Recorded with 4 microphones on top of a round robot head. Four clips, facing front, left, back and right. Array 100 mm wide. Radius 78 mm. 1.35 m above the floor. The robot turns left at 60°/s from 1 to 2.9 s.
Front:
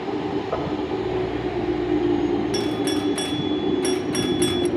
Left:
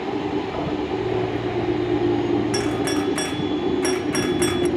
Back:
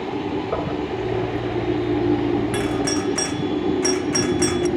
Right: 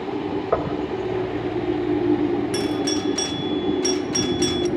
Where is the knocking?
95° right, 4.5 m.